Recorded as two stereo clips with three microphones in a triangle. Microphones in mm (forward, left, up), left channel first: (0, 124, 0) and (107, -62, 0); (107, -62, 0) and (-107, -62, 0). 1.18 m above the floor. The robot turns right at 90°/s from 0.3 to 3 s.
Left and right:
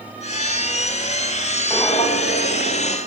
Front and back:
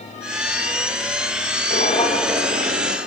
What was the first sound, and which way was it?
Footsteps, 35° left.